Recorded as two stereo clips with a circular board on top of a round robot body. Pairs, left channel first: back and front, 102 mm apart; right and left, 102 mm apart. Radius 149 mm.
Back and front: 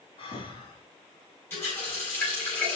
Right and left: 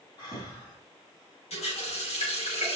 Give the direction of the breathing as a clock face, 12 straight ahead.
5 o'clock.